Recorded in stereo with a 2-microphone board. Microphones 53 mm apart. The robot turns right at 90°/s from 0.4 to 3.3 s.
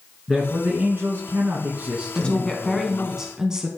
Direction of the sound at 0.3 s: 170° right.